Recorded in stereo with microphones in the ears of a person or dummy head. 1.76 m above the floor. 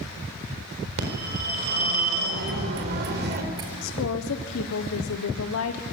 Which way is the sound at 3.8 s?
85° left.